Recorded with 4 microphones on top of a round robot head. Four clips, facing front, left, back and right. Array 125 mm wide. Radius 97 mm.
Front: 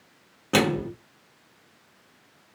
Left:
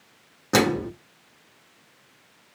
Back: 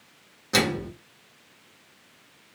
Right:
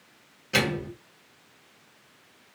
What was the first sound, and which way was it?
A microwave, 55° left.